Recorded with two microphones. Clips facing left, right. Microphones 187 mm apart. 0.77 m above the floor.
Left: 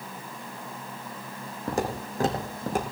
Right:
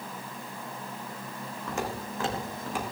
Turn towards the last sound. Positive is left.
turn(degrees=45)  # may be behind; listen again after turning